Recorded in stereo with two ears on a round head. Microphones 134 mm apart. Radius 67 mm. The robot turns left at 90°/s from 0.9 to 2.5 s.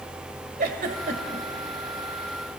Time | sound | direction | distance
0.6 | a giggle | 60° right (ahead or behind) | 2 m